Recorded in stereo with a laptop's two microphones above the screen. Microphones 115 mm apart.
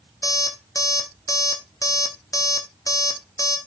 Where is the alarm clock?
30° left (ahead or behind), 1.0 m.